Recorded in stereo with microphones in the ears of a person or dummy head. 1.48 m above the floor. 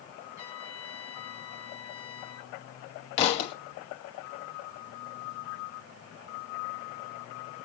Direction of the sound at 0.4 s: 15° right (ahead or behind).